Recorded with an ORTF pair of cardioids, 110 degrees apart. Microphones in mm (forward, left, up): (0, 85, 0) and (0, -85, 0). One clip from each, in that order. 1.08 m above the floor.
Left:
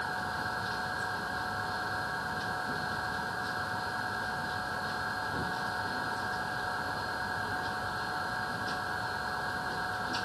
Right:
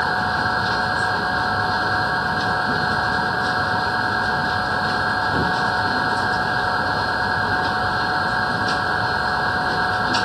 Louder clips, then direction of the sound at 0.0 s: Right 14 dB; 70° right.